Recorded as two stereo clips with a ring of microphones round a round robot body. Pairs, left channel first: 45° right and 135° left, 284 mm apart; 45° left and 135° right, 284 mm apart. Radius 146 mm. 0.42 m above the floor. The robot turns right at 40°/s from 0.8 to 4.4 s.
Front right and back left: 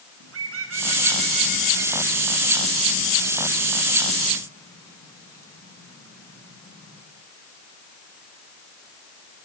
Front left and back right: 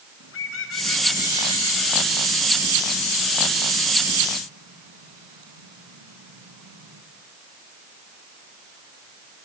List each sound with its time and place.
0.2 s a bird: 90° left, 4.5 m; by 7.0 s 125° right, 4.5 m